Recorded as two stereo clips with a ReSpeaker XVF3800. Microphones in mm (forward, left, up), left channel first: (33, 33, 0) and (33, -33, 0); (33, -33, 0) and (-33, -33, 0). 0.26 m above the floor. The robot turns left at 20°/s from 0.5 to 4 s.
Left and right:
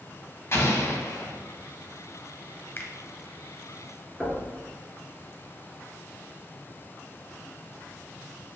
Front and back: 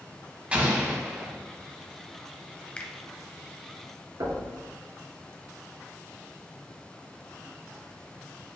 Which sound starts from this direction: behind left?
An explosion, at 0.5 s.